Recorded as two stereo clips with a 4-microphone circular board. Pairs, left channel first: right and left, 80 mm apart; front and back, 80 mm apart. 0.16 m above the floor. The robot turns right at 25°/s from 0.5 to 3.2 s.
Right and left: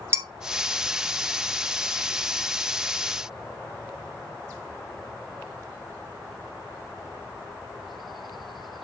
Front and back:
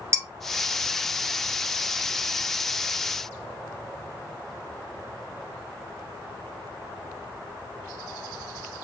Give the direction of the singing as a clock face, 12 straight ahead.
I don't hear singing.